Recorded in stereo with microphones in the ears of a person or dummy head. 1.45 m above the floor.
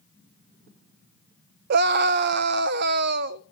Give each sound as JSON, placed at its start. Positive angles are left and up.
{"t": 1.7, "sound": "a scream", "side_deg": -50, "distance_m": 0.6}